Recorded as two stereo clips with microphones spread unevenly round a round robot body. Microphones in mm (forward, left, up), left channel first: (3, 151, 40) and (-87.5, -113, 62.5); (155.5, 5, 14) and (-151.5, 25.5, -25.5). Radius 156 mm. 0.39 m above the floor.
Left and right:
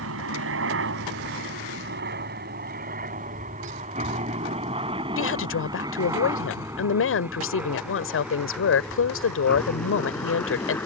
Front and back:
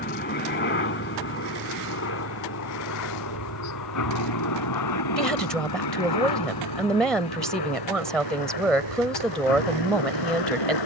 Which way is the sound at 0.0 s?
65° right.